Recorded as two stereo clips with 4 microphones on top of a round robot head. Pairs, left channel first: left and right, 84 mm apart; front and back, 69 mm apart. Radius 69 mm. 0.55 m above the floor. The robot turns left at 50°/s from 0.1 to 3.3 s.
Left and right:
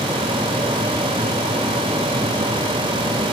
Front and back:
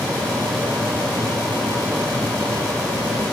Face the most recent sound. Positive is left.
No sound to turn to.